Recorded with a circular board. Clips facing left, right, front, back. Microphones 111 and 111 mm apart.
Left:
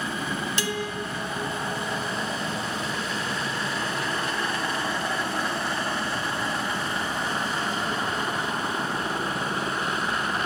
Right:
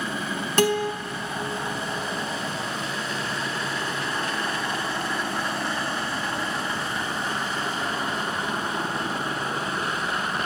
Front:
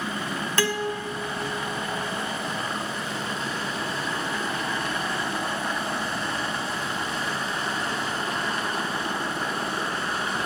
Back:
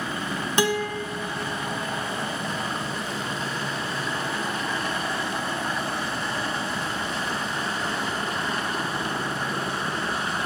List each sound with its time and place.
0.6 s a guitar: 110° right, 0.9 m